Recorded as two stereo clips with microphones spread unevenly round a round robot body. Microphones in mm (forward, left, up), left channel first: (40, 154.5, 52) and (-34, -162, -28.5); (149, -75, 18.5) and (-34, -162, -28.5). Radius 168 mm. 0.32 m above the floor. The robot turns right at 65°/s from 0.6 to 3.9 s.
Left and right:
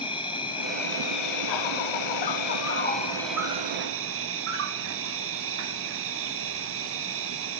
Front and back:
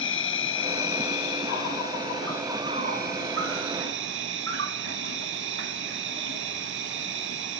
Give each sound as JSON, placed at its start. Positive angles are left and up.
{"t": 0.0, "sound": "an insect", "azimuth_deg": -5, "distance_m": 0.8}